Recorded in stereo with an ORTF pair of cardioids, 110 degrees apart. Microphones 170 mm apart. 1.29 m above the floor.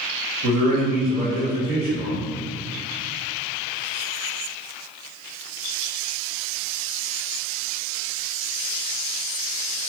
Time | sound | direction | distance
0.4 | a man speaking | 60° right | 1.6 m